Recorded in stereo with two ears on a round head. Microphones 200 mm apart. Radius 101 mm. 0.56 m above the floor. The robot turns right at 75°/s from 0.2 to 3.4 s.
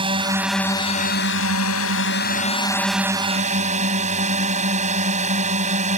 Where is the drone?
25° right; by 6.0 s 145° right.